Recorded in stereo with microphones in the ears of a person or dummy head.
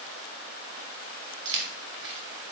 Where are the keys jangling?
70° right (ahead or behind), 1.1 m.